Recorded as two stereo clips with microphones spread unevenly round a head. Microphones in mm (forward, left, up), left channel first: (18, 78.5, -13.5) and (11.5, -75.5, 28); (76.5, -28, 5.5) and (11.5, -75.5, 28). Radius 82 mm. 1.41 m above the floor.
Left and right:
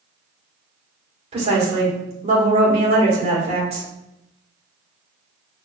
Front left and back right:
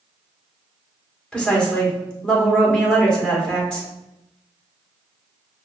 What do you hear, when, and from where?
1.3 s a woman speaking: 40° right, 1.8 m